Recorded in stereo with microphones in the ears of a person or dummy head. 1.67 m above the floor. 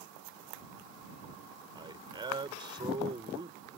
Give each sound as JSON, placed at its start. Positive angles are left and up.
{"t": 1.8, "sound": "a man speaking", "side_deg": -25}